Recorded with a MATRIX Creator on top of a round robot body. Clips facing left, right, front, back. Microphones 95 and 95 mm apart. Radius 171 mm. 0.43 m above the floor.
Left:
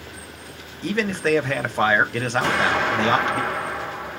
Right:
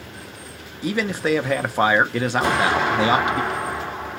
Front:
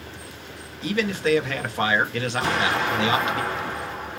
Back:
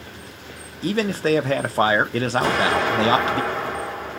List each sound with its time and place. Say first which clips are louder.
0.8 s a man speaking: even, back 2 dB; 165° right, 1.0 m
2.4 s an explosion: right 1 dB, back 2 dB; 160° right, 1.7 m